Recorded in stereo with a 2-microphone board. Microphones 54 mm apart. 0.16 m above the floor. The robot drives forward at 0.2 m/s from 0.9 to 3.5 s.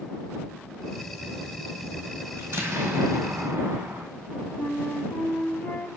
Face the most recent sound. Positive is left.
turn(degrees=35)  # may be behind; listen again after turning